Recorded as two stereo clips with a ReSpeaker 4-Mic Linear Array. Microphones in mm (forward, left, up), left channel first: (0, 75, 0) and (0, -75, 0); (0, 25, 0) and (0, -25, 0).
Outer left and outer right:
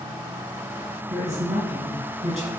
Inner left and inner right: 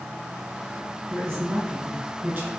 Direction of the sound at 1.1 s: 50° right (ahead or behind).